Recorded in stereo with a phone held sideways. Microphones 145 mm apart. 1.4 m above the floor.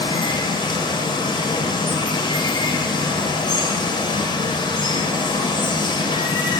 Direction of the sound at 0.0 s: 30° left (ahead or behind).